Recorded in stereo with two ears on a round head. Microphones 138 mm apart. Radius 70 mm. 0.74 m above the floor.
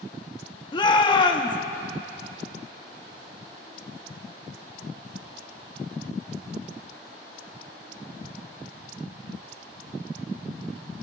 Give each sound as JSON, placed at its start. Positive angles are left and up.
{"t": 0.7, "sound": "a shout", "side_deg": 30, "distance_m": 1.2}